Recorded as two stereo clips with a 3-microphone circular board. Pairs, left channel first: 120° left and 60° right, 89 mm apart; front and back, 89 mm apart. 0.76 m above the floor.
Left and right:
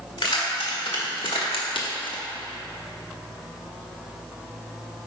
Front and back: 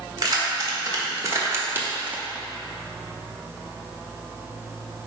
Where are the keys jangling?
135° left, 1.8 m; by 2.2 s 105° left, 0.8 m.